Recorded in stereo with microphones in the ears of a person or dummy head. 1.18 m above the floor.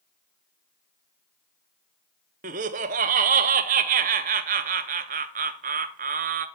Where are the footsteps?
I don't hear footsteps.